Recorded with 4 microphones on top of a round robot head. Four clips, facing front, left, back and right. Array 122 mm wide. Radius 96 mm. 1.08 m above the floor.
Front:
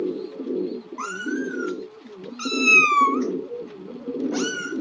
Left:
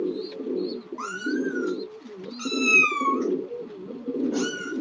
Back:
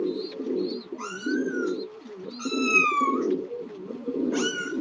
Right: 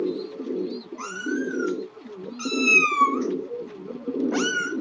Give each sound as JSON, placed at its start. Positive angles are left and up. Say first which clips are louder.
{"t": 1.0, "sound": "a cat meowing", "louder": "left 1 dB, even", "azimuth_deg": 35, "distance_m": 2.5}